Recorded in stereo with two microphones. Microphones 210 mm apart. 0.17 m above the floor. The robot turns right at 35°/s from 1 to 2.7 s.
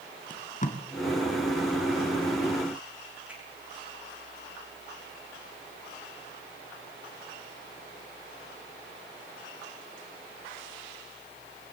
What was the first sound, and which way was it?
Tape being pulled, 40° left (ahead or behind).